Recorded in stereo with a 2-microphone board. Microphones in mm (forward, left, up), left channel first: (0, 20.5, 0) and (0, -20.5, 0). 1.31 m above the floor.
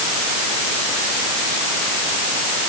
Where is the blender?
No blender in this recording.